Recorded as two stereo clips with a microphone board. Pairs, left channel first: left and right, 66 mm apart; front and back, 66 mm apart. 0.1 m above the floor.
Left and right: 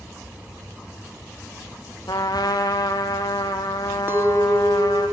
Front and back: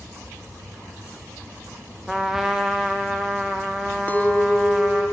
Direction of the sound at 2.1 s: 95° left.